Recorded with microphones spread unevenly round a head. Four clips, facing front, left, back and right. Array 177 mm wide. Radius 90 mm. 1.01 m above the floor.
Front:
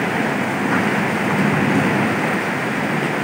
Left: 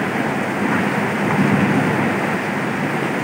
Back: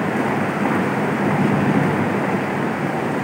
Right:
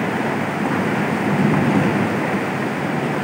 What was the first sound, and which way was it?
Only background noise.